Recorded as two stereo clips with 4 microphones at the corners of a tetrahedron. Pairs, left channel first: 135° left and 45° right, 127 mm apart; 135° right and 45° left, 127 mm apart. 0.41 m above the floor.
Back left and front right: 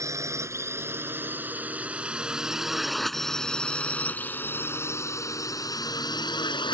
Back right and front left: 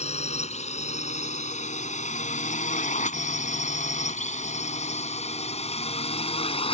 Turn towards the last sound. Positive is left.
turn(degrees=-175)